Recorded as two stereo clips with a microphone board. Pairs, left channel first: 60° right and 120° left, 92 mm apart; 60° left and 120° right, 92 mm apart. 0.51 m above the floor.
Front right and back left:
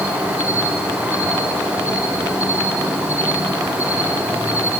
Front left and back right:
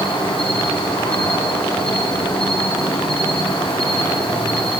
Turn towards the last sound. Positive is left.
turn(degrees=50)